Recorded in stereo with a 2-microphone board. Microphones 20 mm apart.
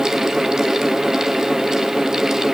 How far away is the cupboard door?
No cupboard door in this recording.